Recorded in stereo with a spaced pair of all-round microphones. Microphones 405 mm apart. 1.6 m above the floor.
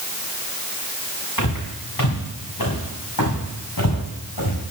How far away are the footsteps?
About 8 m.